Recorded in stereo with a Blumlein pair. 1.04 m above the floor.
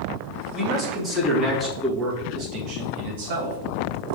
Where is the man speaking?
10° left, 1.6 m; by 3.6 s 60° right, 1.4 m.